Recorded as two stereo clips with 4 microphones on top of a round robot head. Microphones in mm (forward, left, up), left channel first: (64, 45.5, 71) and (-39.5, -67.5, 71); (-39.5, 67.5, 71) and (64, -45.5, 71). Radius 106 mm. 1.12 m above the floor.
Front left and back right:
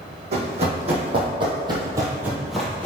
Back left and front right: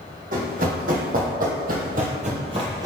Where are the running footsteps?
85° right, 2.5 m; by 2.9 s 10° right, 1.1 m.